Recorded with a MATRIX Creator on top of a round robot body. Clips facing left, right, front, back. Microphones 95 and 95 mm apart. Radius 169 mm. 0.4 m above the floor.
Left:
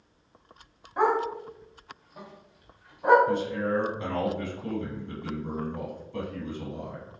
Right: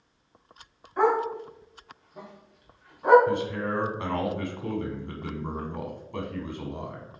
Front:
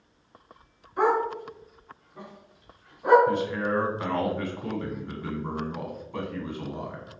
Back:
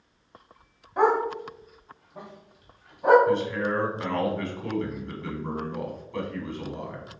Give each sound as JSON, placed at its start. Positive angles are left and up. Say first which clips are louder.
{"t": 1.0, "sound": "a dog barking", "louder": "right 1 dB, back 1 dB", "azimuth_deg": 165, "distance_m": 1.6}
{"t": 3.3, "sound": "a man speaking", "louder": "left 1 dB, back 1 dB", "azimuth_deg": -85, "distance_m": 1.5}